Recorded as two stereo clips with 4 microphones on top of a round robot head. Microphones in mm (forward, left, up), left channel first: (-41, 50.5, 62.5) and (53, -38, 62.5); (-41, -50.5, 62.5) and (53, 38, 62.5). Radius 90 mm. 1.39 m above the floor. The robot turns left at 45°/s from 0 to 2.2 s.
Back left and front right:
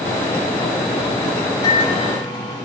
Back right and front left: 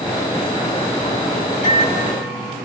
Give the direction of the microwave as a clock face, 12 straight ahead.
5 o'clock.